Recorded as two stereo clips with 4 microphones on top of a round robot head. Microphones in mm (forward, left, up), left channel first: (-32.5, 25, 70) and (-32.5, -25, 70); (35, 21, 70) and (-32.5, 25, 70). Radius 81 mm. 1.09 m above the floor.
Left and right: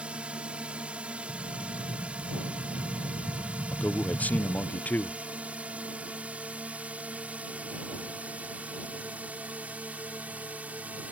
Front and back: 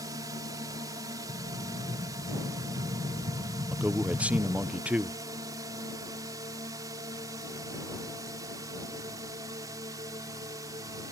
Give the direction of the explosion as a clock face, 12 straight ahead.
5 o'clock.